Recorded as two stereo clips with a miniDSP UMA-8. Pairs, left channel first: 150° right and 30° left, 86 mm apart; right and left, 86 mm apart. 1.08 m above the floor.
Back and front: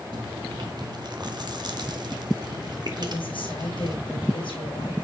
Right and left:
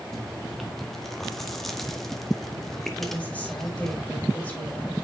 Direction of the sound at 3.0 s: 160° right.